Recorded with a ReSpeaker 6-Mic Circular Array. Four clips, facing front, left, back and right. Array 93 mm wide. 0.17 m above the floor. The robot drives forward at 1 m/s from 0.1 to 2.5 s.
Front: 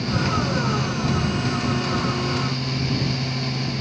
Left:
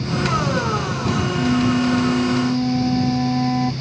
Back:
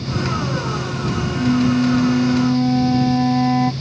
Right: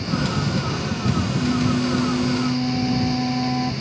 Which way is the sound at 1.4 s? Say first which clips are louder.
Left 4 dB, back 8 dB; 155° left.